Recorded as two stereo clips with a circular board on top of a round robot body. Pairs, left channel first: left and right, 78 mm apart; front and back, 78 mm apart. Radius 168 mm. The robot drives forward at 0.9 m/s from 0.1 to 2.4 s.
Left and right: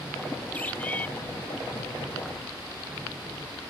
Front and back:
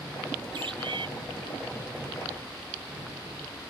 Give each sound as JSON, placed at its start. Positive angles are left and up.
{"t": 0.5, "sound": "a bird", "azimuth_deg": 160}